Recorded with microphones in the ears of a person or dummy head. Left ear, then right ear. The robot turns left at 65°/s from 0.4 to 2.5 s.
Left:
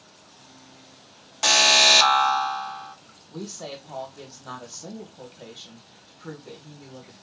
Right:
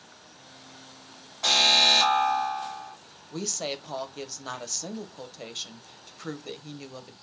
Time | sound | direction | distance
1.4 | an alarm | 105° left | 1.2 m
3.3 | a woman speaking | 75° right (ahead or behind) | 0.9 m